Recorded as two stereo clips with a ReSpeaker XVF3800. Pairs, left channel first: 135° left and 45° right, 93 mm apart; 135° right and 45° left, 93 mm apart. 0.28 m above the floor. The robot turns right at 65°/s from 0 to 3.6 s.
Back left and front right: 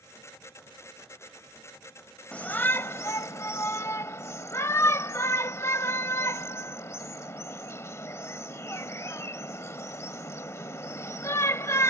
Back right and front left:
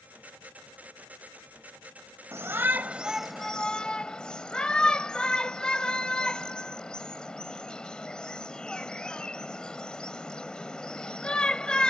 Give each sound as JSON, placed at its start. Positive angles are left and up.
{"t": 2.3, "sound": "a shout", "azimuth_deg": 70}